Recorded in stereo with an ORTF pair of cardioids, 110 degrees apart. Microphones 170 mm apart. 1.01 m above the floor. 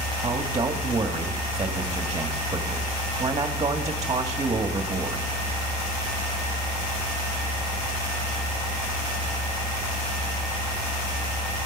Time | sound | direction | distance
0.2 | a man speaking | 20° right | 1.8 m